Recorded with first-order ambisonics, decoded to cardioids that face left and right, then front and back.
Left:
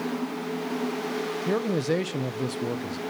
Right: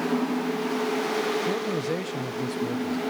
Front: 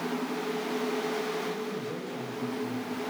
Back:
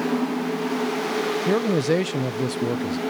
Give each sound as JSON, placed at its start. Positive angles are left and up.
{"t": 1.5, "sound": "a man speaking", "azimuth_deg": 165, "distance_m": 1.1}